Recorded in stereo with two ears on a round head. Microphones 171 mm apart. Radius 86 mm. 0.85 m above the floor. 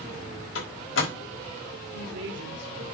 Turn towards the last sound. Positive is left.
turn(degrees=-65)  # may be behind; listen again after turning